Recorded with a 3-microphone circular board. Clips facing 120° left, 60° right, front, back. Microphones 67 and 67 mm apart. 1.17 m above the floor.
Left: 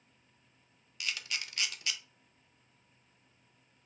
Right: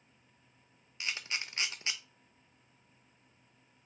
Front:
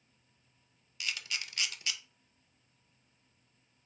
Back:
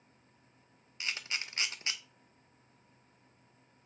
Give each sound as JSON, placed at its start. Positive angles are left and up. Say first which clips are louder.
{"t": 1.0, "sound": "a camera shutter", "louder": "right 1 dB, back 1 dB", "azimuth_deg": -120, "distance_m": 0.5}